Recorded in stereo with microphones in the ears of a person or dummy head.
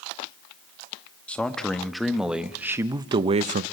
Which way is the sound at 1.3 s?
5° left (ahead or behind).